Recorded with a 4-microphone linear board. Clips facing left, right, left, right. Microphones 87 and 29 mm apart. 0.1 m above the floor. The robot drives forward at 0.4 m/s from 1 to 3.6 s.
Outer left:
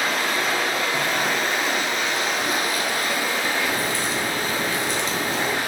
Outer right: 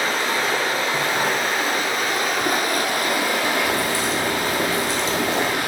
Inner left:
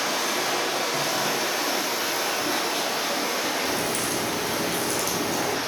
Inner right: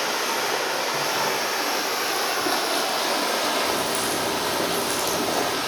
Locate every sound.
0.0 s running water: 30° right (ahead or behind), 1.3 m; by 5.7 s 75° right (ahead or behind), 0.7 m
3.6 s a crack: 35° right (ahead or behind), 1.2 m